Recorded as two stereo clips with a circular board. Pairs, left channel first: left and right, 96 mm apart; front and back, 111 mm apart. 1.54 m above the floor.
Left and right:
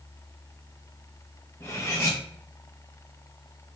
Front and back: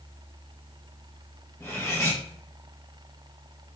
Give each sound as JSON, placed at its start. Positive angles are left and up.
{"t": 1.6, "sound": "cutlery clinking", "azimuth_deg": 50, "distance_m": 0.9}